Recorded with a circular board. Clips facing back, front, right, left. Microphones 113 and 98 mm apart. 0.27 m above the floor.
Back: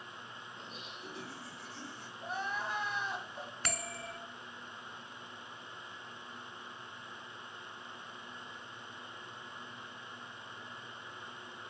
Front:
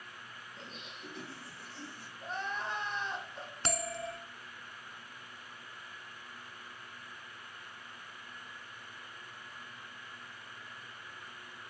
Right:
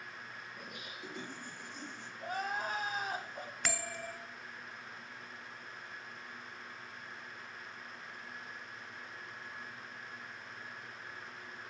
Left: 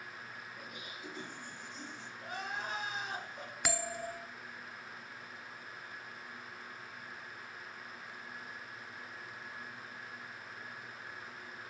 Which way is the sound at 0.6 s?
95° right.